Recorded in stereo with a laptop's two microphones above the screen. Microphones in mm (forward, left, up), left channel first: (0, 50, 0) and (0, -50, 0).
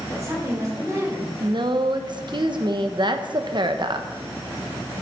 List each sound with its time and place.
0.1 s a woman speaking: 35° right (ahead or behind), 3.5 m
1.4 s a woman speaking: 50° right (ahead or behind), 1.0 m